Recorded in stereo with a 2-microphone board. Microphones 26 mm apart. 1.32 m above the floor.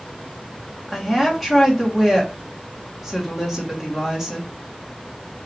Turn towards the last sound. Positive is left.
turn(degrees=-10)  # may be behind; listen again after turning